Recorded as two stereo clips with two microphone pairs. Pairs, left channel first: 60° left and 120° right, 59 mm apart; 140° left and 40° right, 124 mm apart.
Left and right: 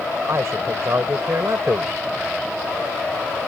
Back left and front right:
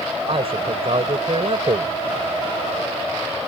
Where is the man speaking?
80° right.